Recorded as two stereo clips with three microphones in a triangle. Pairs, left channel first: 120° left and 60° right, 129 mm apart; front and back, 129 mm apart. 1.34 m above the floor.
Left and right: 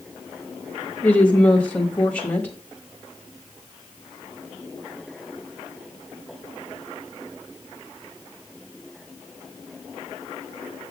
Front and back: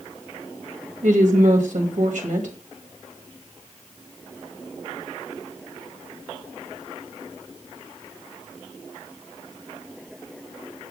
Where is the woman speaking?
155° right, 2.0 m.